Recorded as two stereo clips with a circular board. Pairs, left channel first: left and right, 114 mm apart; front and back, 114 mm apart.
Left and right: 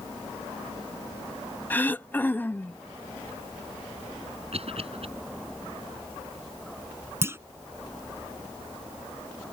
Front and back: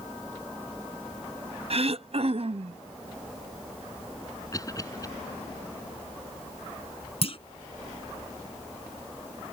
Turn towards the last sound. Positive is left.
turn(degrees=-25)